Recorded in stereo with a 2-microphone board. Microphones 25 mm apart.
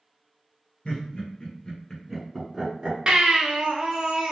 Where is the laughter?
40° left (ahead or behind), 1.7 m; by 3.0 s 40° right (ahead or behind), 1.6 m.